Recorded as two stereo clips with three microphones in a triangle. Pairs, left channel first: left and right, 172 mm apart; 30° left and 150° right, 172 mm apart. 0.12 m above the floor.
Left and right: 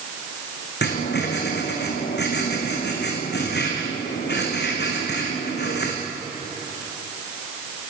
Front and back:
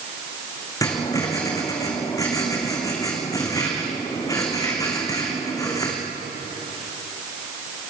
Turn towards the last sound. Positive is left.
turn(degrees=100)